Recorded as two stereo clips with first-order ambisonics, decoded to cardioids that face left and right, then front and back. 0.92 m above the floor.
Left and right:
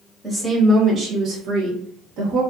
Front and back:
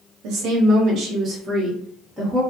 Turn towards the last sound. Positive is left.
turn(degrees=-85)